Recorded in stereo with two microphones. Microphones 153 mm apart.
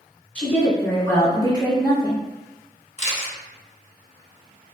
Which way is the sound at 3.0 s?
50° left (ahead or behind).